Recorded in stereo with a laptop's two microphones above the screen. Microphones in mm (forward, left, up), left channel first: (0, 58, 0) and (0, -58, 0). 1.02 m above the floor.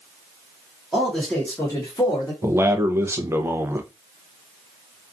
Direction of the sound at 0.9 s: 5° right (ahead or behind).